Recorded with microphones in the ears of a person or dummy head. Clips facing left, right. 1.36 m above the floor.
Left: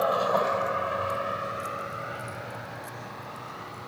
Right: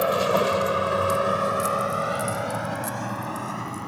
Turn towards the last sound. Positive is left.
turn(degrees=-65)  # may be behind; listen again after turning